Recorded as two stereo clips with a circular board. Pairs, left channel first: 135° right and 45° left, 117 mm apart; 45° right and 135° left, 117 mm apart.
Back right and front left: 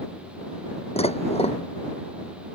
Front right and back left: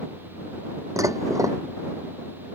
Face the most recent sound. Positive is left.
turn(degrees=-165)